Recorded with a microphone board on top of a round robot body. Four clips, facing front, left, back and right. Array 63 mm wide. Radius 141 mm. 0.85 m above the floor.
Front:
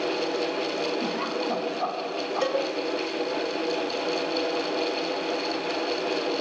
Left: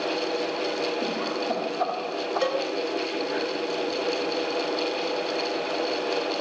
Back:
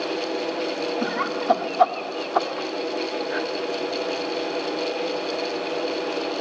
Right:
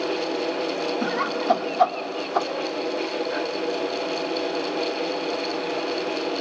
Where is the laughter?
135° right, 3.5 m; by 3.4 s 170° right, 3.5 m.